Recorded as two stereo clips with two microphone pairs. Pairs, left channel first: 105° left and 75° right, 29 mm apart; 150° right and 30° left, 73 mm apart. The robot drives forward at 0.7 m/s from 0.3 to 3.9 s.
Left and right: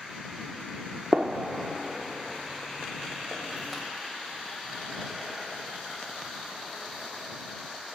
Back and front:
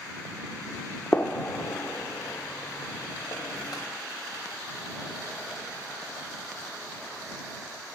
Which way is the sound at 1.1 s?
95° right.